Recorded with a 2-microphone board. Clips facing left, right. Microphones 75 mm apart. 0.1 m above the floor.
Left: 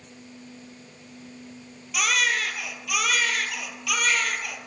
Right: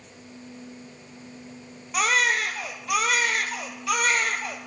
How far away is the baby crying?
About 1.2 m.